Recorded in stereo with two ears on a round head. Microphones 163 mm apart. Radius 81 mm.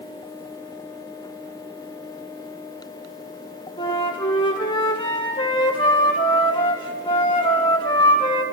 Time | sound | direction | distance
3.8 | a flute | 30° left (ahead or behind) | 1.8 m